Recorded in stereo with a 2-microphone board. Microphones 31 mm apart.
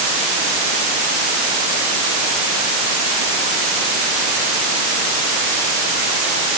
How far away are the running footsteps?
No running footsteps in this recording.